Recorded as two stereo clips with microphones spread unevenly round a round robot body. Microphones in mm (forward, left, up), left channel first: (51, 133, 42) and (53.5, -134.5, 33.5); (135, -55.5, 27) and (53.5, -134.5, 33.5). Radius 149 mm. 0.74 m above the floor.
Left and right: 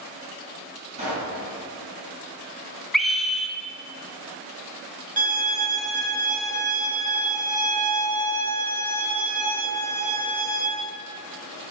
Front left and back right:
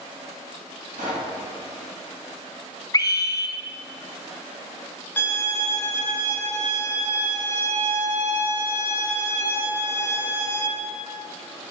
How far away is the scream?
About 0.9 m.